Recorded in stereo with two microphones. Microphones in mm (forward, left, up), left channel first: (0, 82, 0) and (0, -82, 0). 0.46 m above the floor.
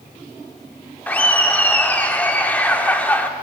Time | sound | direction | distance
1.1 | laughter | 10° left (ahead or behind) | 0.8 m